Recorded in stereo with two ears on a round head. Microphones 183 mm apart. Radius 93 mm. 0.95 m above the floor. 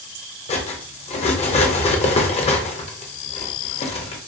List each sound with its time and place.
0.5 s cutlery clinking: 30° left (ahead or behind), 0.5 m